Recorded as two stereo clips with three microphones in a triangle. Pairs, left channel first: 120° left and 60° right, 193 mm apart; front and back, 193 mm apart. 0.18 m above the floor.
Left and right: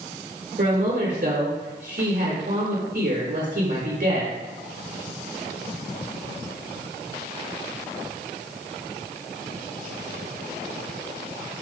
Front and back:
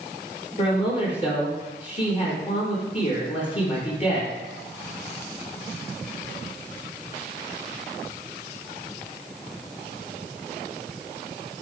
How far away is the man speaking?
About 4.5 m.